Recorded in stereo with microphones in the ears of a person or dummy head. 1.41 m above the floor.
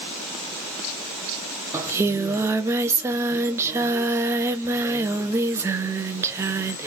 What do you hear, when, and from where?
1.7 s singing: 10° right (ahead or behind), 0.6 m